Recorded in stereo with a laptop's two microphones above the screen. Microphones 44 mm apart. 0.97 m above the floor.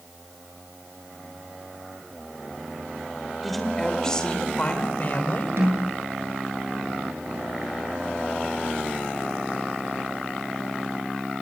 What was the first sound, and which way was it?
A woman speaking, centre (ahead or behind).